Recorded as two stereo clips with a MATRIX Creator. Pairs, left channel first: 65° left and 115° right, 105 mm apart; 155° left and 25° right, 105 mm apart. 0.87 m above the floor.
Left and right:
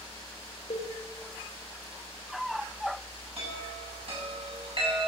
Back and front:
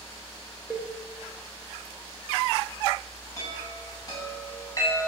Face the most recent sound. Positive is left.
turn(degrees=-145)